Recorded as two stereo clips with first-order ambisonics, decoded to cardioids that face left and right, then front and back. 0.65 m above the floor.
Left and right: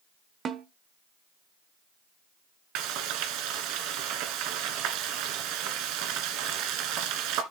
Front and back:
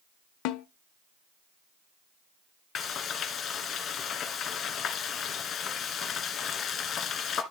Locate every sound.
0.5 s a snare drum: 25° right, 0.9 m
2.8 s frying: 60° right, 1.7 m